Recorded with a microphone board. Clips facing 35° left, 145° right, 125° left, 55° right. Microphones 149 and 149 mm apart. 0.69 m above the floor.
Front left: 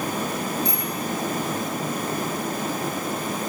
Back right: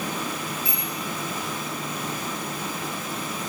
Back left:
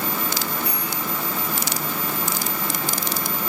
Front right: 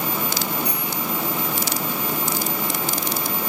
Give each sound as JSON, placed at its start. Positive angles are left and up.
{"t": 0.7, "sound": "a bicycle bell", "azimuth_deg": -60, "distance_m": 9.0}